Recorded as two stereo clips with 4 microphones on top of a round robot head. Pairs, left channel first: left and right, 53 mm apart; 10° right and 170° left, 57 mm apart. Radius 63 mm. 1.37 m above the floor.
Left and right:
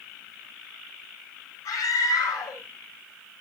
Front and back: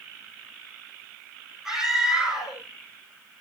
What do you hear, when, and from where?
1.6 s a scream: 90° left, 9 m